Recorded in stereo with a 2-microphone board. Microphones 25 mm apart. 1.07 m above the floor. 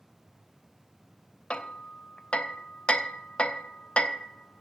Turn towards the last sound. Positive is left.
turn(degrees=40)  # may be behind; listen again after turning